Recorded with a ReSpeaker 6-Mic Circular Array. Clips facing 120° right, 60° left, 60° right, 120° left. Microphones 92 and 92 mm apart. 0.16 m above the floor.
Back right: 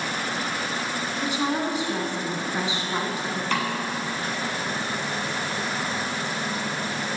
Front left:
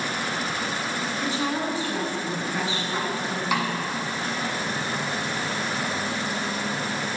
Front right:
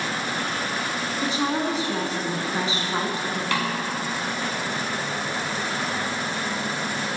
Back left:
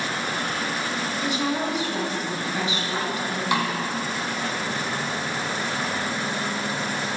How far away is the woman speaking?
About 1.8 m.